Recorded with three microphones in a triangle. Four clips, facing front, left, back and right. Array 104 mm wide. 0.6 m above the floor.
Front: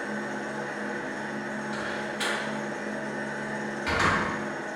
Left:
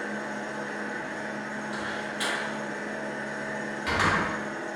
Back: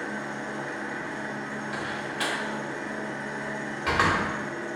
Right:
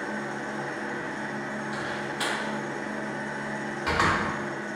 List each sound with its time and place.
0.0 s an engine running: 125° right, 1.0 m
1.7 s a door slam: 170° right, 1.2 m